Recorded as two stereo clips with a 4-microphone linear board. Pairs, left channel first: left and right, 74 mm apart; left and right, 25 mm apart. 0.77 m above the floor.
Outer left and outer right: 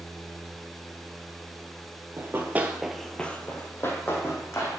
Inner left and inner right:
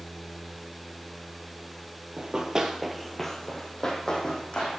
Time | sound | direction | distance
2.2 | running footsteps | 35° right (ahead or behind) | 1.0 m